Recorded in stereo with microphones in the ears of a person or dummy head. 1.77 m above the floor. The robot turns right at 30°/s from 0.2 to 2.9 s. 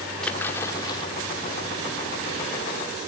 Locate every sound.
0.2 s a splash: 5° left (ahead or behind), 2 m; by 1.1 s 25° left (ahead or behind), 2 m